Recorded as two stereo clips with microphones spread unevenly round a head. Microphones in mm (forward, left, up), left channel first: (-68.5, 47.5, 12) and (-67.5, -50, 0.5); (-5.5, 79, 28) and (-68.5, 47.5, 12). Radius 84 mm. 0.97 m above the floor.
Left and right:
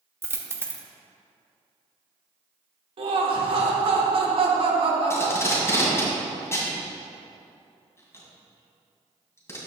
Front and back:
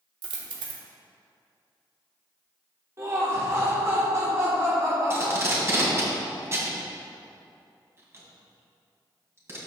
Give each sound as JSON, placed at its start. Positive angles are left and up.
{"t": 0.2, "sound": "a dropped coin", "azimuth_deg": -155, "distance_m": 1.0}
{"t": 3.0, "sound": "laughter", "azimuth_deg": -105, "distance_m": 1.5}
{"t": 5.1, "sound": "tape being pulled", "azimuth_deg": 150, "distance_m": 3.0}